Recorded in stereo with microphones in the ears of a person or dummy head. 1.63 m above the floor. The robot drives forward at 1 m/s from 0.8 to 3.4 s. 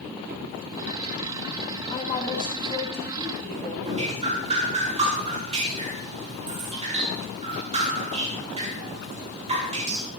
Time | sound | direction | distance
1.9 | a woman speaking | 35° left (ahead or behind) | 1.9 m
3.8 | dripping | 30° right (ahead or behind) | 4.5 m